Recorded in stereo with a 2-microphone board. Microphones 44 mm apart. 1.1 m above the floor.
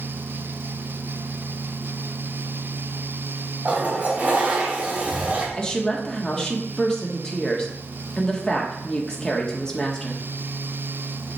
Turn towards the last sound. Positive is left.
turn(degrees=15)  # may be behind; listen again after turning